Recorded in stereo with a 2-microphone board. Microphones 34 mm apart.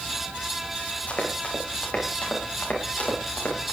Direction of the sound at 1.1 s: 40° left (ahead or behind).